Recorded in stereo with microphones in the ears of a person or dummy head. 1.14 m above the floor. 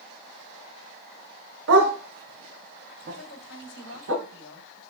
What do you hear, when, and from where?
1.7 s a dog barking: 65° right (ahead or behind), 1.8 m
3.1 s a woman speaking: 60° left (ahead or behind), 3 m